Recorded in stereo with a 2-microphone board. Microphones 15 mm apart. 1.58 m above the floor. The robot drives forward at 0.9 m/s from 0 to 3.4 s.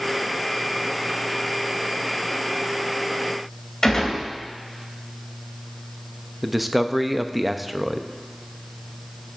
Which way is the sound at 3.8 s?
40° left (ahead or behind).